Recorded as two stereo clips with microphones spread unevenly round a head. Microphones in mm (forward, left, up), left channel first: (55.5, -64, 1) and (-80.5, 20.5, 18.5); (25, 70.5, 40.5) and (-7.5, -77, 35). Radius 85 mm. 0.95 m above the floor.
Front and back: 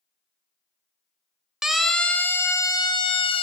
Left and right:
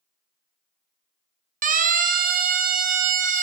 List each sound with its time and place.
1.6 s a siren: 120° right, 2.5 m; by 3.4 s 80° right, 3 m